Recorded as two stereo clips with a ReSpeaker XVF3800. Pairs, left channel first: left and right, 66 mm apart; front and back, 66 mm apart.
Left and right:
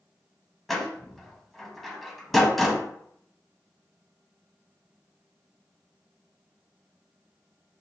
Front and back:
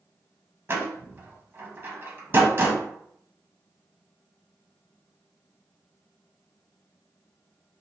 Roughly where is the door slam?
Behind.